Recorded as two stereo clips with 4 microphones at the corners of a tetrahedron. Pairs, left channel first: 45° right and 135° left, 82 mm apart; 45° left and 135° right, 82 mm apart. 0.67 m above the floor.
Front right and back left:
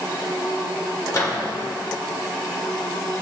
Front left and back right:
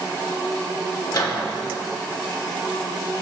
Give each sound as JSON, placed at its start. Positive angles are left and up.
{"t": 1.1, "sound": "a microwave", "azimuth_deg": 5, "distance_m": 1.3}